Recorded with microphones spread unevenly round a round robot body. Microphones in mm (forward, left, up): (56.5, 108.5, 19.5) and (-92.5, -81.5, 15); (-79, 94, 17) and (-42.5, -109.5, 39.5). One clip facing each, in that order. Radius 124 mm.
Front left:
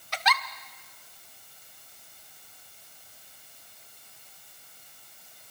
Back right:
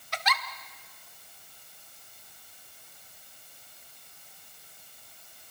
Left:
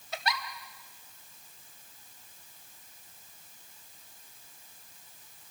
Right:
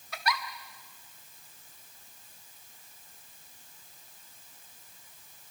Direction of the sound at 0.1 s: 35° left.